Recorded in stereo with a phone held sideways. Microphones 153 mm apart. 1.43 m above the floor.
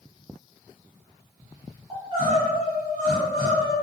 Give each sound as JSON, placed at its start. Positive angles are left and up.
{"t": 1.9, "sound": "crying", "side_deg": -35, "distance_m": 1.7}